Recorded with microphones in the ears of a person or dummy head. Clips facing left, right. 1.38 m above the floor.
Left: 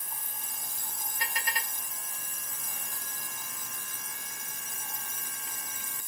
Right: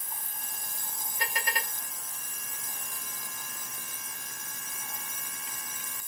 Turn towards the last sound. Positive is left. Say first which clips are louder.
# right 3 dB
turn(degrees=-45)  # may be behind; listen again after turning